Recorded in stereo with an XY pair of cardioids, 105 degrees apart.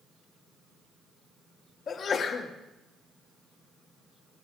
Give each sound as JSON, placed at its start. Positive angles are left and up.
{"t": 1.9, "sound": "a sneeze", "azimuth_deg": 50, "distance_m": 1.5}